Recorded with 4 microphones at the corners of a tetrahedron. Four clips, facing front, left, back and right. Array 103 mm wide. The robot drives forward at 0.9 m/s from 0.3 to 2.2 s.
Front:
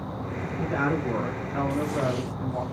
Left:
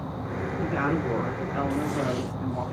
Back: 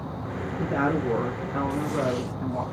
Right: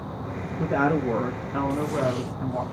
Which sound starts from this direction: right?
A woman speaking, at 0.6 s.